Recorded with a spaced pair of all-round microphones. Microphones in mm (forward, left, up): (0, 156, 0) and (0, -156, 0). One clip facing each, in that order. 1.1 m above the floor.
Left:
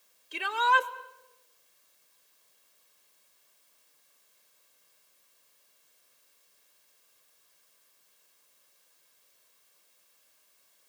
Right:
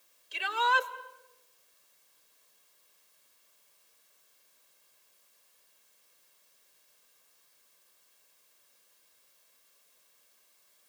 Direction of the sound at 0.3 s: 60° left (ahead or behind).